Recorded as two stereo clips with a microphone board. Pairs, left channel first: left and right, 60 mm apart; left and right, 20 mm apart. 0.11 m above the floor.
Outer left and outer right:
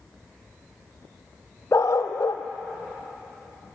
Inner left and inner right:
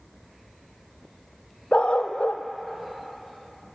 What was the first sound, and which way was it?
A dog barking, 55° left (ahead or behind).